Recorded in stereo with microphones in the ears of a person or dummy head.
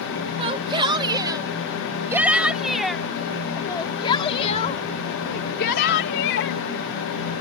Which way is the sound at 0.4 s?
30° right (ahead or behind).